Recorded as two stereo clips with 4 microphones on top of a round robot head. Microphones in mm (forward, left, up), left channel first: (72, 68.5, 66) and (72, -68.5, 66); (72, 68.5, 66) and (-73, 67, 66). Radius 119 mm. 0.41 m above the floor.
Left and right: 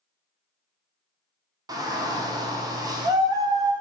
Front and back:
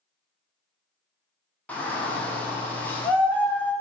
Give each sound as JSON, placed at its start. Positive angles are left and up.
{"t": 1.7, "sound": "a shout", "azimuth_deg": -70, "distance_m": 0.8}